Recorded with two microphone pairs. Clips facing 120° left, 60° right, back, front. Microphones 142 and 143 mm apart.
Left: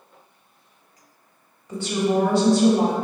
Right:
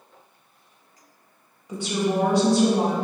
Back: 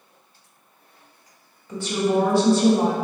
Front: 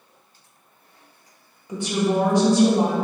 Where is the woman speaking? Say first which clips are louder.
Left 2 dB, even; 25° right, 0.8 m.